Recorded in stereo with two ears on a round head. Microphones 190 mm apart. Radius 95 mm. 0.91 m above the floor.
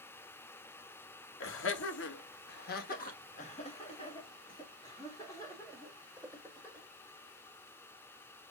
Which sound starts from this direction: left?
Laughter, at 1.4 s.